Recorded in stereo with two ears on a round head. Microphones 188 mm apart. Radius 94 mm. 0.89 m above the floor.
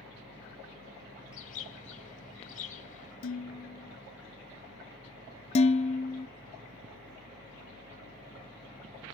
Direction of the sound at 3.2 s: 70° left (ahead or behind).